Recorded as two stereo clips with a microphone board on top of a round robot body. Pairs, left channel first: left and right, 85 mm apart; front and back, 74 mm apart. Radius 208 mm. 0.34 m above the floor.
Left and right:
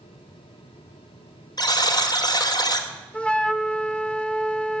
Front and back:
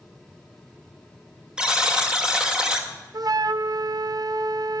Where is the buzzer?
100° left, 1.7 m.